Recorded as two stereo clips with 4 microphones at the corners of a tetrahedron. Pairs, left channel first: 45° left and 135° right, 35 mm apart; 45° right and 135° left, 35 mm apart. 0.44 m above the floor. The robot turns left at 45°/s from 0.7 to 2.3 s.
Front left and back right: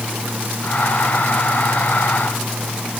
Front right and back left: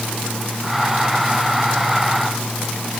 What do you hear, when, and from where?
Only background noise.